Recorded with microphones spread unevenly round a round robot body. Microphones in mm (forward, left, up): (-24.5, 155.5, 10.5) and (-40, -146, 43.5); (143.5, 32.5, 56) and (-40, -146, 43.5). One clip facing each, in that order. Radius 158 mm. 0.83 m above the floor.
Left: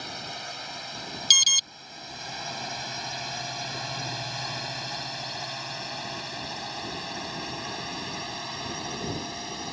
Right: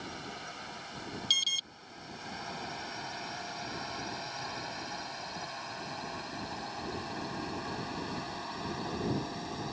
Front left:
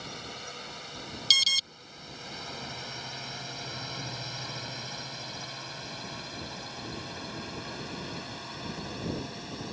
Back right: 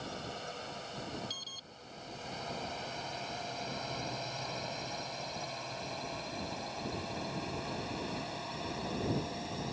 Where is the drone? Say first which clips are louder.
Left 2 dB, back right 1 dB; 110° left; by 9.7 s 120° left.